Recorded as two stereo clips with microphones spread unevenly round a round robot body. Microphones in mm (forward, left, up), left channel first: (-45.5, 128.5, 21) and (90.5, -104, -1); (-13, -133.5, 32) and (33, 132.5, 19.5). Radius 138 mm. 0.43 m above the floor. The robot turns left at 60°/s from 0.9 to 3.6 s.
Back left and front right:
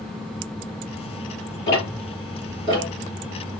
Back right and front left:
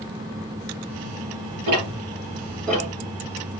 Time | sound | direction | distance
1.7 | ticking | 75° left | 3.5 m